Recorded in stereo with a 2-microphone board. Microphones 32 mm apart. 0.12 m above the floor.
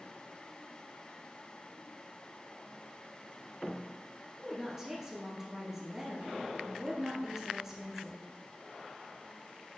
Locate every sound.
4.4 s a woman speaking: 15° right (ahead or behind), 1.7 m